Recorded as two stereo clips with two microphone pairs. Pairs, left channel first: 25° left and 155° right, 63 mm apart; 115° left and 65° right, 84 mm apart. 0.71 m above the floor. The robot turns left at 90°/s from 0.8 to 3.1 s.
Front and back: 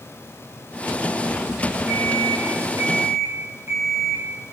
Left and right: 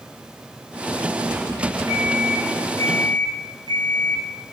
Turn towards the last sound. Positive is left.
turn(degrees=150)